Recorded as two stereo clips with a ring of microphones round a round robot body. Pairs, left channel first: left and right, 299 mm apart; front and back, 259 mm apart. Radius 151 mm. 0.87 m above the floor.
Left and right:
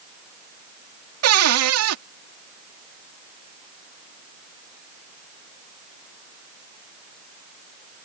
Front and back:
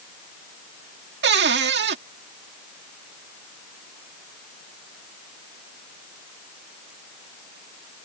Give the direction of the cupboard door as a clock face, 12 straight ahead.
4 o'clock.